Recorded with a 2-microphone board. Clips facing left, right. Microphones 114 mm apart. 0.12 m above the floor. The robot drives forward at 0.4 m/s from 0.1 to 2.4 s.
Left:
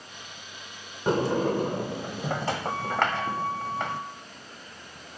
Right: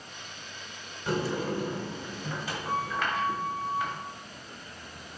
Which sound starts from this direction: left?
A sliding door, at 1.1 s.